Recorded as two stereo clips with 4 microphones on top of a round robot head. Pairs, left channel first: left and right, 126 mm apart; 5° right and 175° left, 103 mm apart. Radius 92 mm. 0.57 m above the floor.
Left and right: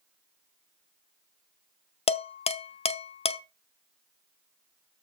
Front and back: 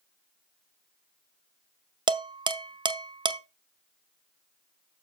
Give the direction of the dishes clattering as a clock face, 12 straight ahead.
8 o'clock.